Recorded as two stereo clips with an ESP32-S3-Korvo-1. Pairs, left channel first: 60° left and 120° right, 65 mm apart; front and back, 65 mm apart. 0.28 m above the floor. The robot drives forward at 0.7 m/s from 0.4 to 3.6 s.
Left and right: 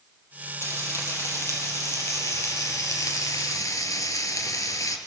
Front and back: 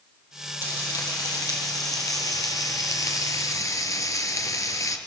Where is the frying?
20° left, 4.5 m; by 5.0 s 30° left, 2.5 m.